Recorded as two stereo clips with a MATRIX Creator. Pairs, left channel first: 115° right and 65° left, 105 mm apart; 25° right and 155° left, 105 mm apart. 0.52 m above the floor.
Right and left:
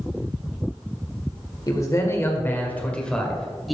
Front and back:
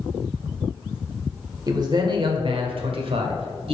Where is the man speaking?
160° right, 1.5 m; by 3.8 s 160° left, 1.8 m.